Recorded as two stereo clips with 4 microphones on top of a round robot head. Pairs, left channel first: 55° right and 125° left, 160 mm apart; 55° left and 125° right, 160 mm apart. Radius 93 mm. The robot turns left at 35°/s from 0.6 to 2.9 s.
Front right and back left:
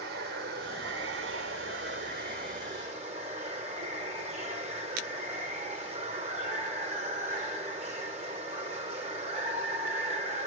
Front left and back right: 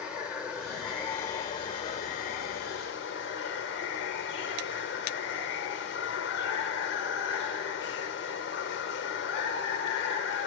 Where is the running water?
155° left, 1.5 m; by 10.5 s 75° left, 1.5 m.